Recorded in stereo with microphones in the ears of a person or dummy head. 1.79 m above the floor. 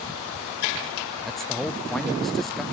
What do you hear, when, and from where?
1.2 s a man speaking: centre (ahead or behind), 0.5 m